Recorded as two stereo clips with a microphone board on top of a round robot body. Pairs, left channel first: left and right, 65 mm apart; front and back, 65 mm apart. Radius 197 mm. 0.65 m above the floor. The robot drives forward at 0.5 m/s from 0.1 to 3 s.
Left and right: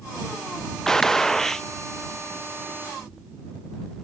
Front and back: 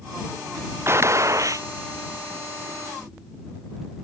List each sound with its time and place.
0.9 s a gunshot: 170° left; by 1.7 s 175° left